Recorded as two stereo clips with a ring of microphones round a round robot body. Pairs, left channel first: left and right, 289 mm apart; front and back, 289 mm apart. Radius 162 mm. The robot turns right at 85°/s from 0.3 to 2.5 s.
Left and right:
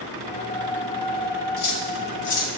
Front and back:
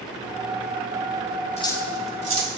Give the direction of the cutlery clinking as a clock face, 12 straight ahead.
10 o'clock.